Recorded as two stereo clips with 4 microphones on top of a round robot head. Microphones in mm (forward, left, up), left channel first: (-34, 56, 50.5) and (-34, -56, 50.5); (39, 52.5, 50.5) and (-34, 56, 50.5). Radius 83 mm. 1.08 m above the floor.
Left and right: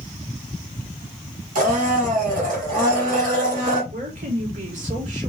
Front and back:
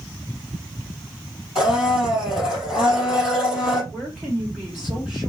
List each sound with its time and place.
1.6 s a blender: 95° right, 3.5 m
3.9 s a woman speaking: 95° right, 3 m